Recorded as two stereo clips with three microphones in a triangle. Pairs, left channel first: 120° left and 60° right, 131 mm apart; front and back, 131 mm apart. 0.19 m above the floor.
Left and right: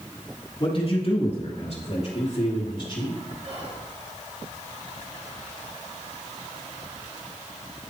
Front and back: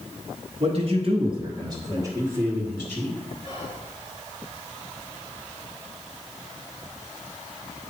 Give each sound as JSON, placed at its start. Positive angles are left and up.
{"t": 0.6, "sound": "a man speaking", "azimuth_deg": 160, "distance_m": 2.5}
{"t": 3.4, "sound": "whispering", "azimuth_deg": -40, "distance_m": 2.5}